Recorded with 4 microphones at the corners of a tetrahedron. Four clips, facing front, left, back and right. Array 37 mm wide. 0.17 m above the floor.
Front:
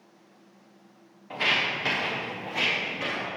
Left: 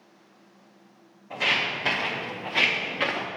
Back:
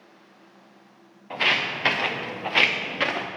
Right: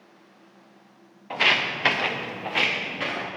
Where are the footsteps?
100° right, 1.7 m; by 3.3 s 155° left, 1.6 m.